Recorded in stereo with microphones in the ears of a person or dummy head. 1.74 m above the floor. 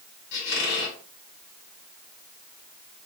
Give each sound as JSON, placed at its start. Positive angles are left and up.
{"t": 0.3, "sound": "a squeak", "side_deg": 60, "distance_m": 1.3}